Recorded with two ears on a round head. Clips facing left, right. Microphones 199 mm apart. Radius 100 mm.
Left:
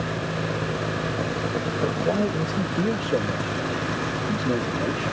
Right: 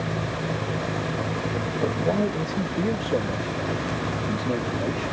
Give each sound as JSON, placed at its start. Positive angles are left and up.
{"t": 1.8, "sound": "a man speaking", "side_deg": 0}